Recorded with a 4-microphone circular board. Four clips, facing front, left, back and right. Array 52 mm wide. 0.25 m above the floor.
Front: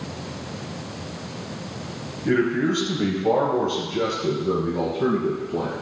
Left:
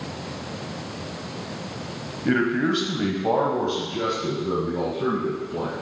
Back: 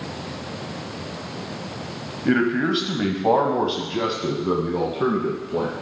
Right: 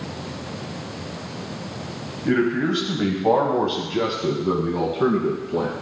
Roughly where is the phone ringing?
I don't hear a phone ringing.